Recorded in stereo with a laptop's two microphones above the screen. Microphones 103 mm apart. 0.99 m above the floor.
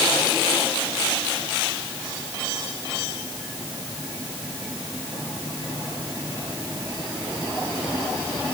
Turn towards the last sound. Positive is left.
No sound to turn to.